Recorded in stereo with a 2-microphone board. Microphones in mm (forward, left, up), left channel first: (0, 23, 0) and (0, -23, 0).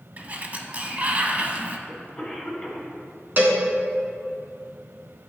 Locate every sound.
0.2 s a sliding door: 35° right (ahead or behind), 0.6 m
1.9 s a cough: 20° left (ahead or behind), 1.9 m
3.4 s a cowbell: 45° right (ahead or behind), 1.1 m